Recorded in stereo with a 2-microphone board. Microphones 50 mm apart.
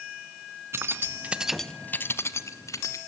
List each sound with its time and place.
0.7 s keys jangling: 50° right (ahead or behind), 1.4 m; by 3.0 s 70° left (ahead or behind), 2 m